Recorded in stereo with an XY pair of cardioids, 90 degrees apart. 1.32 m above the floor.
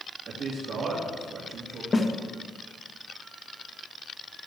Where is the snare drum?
30° left, 1.8 m.